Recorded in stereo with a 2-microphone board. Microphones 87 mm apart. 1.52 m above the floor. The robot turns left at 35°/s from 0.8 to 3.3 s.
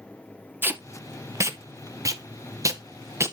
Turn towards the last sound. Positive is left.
turn(degrees=-30)  # may be behind; listen again after turning